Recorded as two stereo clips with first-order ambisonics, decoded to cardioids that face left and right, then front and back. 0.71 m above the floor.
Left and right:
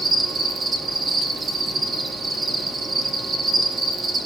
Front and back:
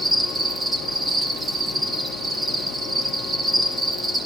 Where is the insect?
130° right, 1.2 m.